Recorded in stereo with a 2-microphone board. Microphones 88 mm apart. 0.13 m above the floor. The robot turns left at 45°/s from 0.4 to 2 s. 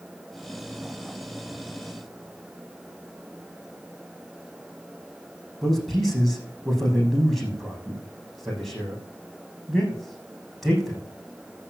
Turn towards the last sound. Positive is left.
turn(degrees=0)  # may be behind; listen again after turning